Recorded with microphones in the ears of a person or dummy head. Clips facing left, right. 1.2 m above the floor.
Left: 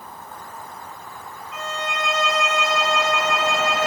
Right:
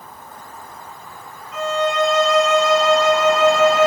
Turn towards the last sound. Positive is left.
turn(degrees=-40)  # may be behind; listen again after turning